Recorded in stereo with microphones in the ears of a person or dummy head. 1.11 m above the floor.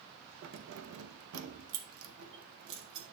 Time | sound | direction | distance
0.4 | keys jangling | 55° right (ahead or behind) | 0.8 m